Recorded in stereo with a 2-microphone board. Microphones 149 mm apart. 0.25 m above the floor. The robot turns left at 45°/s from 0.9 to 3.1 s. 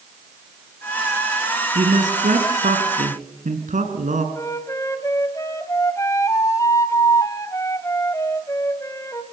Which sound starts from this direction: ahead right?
A man speaking, at 1.8 s.